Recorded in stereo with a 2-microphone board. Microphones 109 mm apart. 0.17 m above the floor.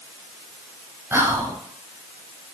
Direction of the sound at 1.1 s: 25° right (ahead or behind).